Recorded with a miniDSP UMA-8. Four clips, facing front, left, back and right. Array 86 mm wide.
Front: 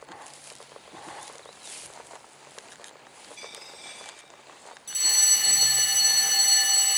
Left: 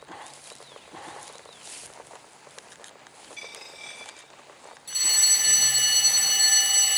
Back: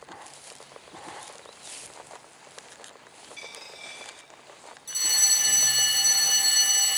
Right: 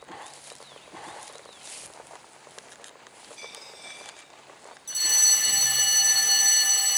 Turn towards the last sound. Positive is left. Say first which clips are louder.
# even, even
turn(degrees=75)